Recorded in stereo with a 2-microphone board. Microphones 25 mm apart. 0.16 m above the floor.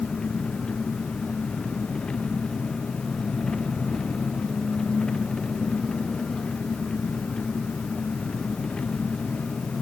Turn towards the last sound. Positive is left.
turn(degrees=35)  # may be behind; listen again after turning